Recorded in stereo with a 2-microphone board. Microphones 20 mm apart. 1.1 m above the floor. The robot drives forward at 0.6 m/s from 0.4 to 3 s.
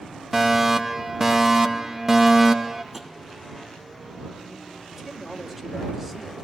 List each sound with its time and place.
0.3 s a fire alarm: 15° right (ahead or behind), 1.5 m
2.9 s tapping: 5° right (ahead or behind), 1.7 m
4.9 s a man speaking: 10° right (ahead or behind), 3.5 m